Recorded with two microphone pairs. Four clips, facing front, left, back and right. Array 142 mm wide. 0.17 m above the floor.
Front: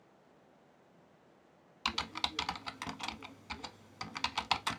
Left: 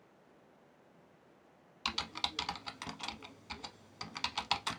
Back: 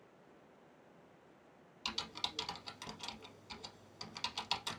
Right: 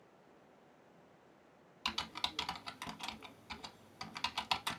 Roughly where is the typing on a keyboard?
Ahead.